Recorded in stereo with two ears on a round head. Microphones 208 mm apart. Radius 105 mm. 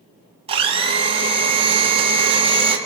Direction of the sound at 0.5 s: 25° right (ahead or behind).